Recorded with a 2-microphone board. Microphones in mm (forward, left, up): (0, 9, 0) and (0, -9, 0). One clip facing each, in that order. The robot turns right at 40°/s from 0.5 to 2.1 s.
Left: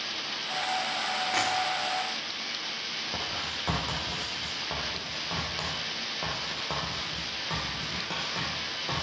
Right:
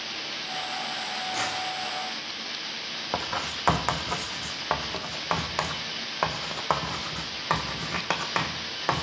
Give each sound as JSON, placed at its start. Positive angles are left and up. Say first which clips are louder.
{"t": 1.3, "sound": "tapping", "louder": "left 2 dB", "side_deg": 40, "distance_m": 5.5}
{"t": 3.1, "sound": "writing", "louder": "right 3 dB", "side_deg": -50, "distance_m": 1.2}